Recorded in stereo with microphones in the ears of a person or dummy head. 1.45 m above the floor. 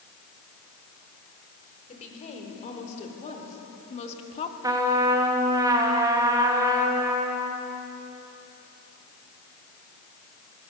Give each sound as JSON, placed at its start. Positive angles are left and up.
{"t": 1.9, "sound": "a woman speaking", "side_deg": 35, "distance_m": 5.0}
{"t": 4.6, "sound": "a trumpet", "side_deg": -25, "distance_m": 1.8}